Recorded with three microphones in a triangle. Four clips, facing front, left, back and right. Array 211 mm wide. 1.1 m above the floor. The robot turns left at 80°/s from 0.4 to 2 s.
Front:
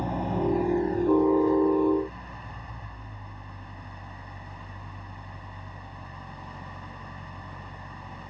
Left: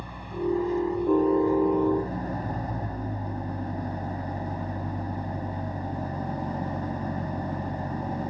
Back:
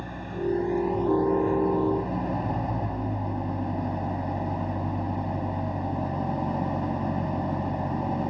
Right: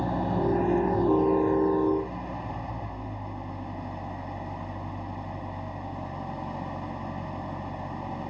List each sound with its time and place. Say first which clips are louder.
0.0 s an engine running: right 5 dB, front 3 dB; 65° right; by 8.3 s 170° left